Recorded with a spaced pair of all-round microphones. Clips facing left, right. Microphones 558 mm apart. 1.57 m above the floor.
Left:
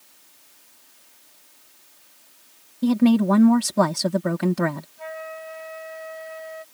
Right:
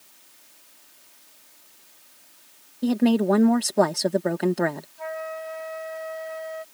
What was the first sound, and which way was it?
A woman speaking, 30° left (ahead or behind).